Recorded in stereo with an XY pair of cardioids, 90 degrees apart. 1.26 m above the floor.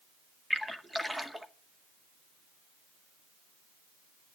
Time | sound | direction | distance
0.5 | a splash | 5° right | 2 m